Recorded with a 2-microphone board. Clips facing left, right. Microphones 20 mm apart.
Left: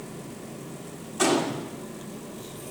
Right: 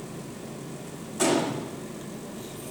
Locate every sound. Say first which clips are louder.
1.2 s a gunshot: left 1 dB; 15° left (ahead or behind), 2.5 m